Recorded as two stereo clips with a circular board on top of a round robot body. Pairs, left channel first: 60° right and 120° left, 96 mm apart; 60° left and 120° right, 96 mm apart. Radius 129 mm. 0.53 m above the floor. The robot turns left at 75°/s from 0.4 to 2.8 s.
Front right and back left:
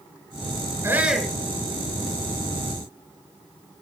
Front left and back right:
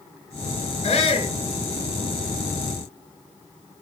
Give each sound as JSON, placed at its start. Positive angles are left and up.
{"t": 0.8, "sound": "a shout", "azimuth_deg": 55, "distance_m": 6.5}